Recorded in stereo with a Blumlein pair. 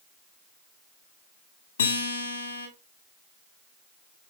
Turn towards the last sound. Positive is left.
turn(degrees=70)